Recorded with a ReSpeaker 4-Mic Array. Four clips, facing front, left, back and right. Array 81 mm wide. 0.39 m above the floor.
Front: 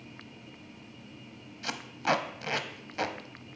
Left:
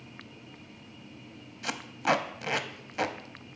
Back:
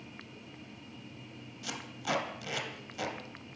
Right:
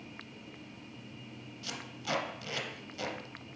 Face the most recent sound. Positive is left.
turn(degrees=55)